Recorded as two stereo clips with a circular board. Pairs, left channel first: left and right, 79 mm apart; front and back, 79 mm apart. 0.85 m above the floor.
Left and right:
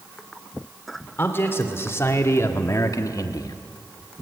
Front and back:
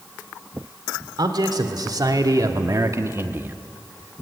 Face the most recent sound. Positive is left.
turn(degrees=115)